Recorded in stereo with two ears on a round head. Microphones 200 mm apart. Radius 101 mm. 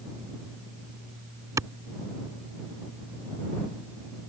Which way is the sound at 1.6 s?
15° right (ahead or behind).